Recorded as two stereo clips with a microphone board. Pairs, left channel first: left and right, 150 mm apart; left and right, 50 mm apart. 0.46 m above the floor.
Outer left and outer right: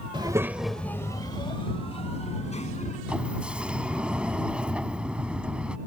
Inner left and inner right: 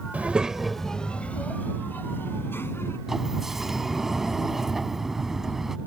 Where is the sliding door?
10° right (ahead or behind).